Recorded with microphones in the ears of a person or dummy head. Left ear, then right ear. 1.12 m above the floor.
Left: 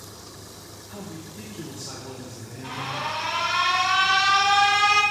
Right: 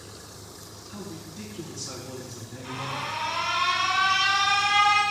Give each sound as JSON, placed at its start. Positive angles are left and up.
{"t": 0.9, "sound": "a man speaking", "side_deg": 35, "distance_m": 1.3}
{"t": 2.6, "sound": "an alarm", "side_deg": 25, "distance_m": 1.9}